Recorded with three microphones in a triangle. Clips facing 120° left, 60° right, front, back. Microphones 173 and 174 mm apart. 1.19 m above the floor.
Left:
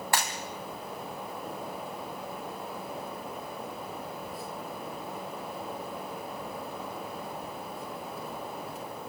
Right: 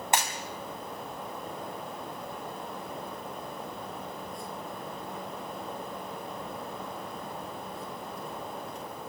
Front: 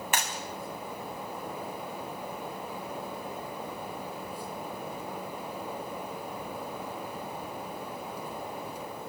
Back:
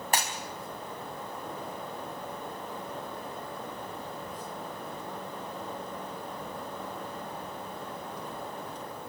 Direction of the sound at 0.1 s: 130° right.